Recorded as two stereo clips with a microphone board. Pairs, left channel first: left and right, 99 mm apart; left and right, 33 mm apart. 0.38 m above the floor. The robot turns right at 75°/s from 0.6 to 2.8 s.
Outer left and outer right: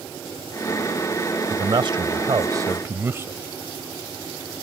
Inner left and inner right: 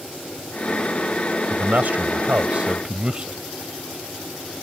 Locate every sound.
1.5 s a man speaking: 130° right; by 3.4 s 30° right